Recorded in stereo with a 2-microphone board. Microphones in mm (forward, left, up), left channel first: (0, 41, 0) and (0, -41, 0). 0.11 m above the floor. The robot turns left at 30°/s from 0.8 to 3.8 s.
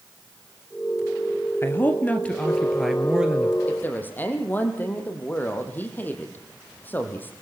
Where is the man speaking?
40° left, 2.0 m; by 3.6 s 20° right, 2.0 m.